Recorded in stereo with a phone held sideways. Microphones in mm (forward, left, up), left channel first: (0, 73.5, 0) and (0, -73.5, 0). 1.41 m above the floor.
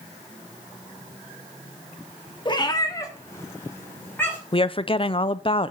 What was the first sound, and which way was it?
A cat meowing, 30° left (ahead or behind).